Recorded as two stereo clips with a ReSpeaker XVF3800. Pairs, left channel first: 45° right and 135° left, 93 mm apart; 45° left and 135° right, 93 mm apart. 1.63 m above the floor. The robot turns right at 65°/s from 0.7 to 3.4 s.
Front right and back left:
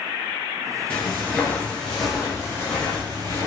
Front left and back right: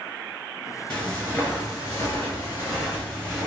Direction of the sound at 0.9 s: 15° right.